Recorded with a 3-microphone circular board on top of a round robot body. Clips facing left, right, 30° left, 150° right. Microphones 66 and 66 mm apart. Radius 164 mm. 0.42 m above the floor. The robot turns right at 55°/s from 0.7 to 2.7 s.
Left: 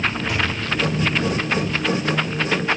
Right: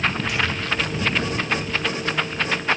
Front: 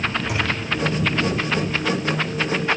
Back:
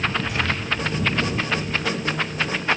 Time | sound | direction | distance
0.3 | a thud | 35° left | 2.5 m